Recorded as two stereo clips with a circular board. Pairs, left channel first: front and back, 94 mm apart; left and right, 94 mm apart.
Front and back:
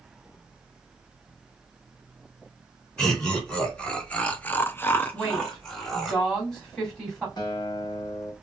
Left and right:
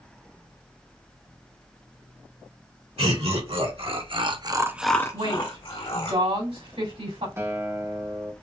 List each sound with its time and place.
3.0 s laughter: 85° right, 2.5 m; by 6.1 s 85° left, 1.7 m
5.1 s a woman speaking: 85° right, 3.5 m
7.4 s a guitar: 30° right, 1.1 m